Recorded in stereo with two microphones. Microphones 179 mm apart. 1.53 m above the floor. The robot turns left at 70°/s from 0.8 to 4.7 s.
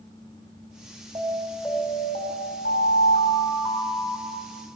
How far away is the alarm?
About 8 m.